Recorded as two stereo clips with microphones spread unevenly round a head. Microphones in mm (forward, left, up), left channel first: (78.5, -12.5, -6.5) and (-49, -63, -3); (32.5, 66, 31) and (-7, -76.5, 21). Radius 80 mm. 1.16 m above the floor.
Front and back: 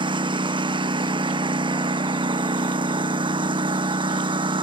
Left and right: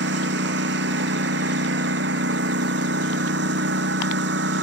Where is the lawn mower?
105° right.